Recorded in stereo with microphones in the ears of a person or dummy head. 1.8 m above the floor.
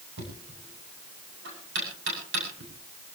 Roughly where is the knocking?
Right.